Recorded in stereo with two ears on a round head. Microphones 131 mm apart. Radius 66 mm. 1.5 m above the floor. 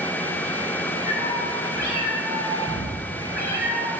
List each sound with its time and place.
1.1 s a cat meowing: 80° left, 3.5 m